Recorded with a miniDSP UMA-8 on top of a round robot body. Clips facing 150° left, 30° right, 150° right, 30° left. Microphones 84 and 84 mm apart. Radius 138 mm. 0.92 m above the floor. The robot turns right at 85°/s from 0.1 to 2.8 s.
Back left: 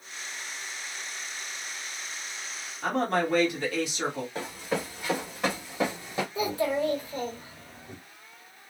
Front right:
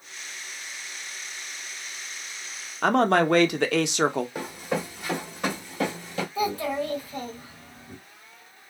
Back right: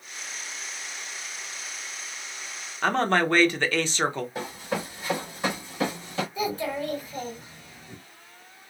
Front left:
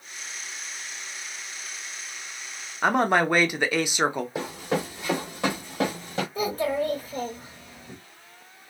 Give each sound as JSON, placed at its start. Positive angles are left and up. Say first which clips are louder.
{"t": 2.8, "sound": "a man speaking", "louder": "front right 6 dB, front left 2 dB", "azimuth_deg": -50, "distance_m": 0.7}
{"t": 4.3, "sound": "running footsteps", "louder": "front right 2 dB, front left 3 dB", "azimuth_deg": 50, "distance_m": 1.6}
{"t": 6.3, "sound": "a child speaking", "louder": "even, front left 4 dB", "azimuth_deg": 80, "distance_m": 1.4}